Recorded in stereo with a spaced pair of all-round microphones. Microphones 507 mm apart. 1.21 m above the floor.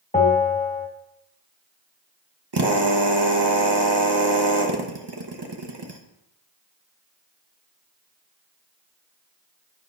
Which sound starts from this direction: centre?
A bell, at 0.1 s.